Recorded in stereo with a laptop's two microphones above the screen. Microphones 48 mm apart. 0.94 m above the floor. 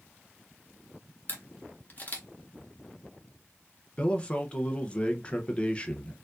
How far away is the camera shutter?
About 0.8 m.